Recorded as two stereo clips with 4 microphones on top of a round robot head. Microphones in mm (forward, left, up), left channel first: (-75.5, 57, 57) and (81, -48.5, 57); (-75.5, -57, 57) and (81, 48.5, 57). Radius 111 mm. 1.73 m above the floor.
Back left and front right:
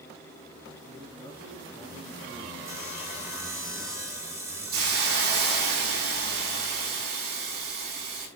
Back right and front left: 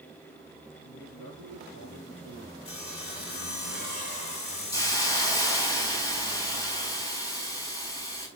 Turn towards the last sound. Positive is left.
turn(degrees=-75)